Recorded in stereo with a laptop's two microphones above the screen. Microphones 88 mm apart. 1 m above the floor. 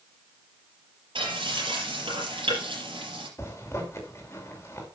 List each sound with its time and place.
1.1 s frying: 70° right (ahead or behind), 6 m
3.4 s a zipper: 30° left (ahead or behind), 2.5 m